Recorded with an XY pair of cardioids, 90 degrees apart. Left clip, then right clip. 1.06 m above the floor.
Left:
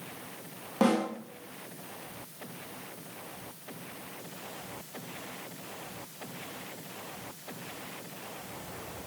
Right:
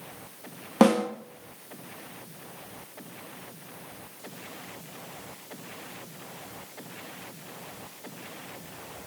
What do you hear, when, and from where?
0.8 s a snare drum: 70° right, 0.7 m